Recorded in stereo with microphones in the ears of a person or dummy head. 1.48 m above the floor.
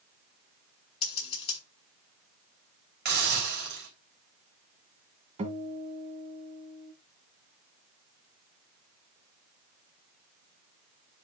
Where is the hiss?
55° right (ahead or behind), 3.5 m.